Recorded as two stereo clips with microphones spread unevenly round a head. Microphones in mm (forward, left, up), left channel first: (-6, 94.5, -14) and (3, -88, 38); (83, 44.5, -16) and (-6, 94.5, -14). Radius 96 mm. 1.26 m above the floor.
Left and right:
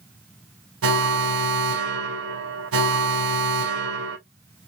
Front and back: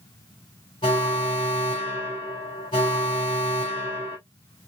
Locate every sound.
0.8 s an alarm: 85° right, 1.4 m